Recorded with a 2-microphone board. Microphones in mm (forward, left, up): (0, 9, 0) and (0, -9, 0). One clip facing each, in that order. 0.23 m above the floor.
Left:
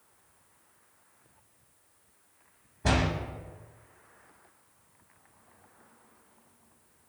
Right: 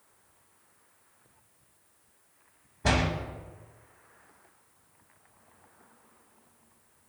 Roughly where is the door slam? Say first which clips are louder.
Right 1 dB; centre.